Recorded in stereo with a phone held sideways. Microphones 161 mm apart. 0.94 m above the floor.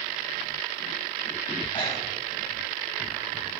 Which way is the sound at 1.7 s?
30° left (ahead or behind).